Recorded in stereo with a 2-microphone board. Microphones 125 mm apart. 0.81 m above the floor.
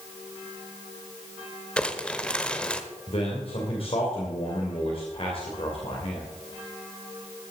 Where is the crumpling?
10° left (ahead or behind), 1.0 m.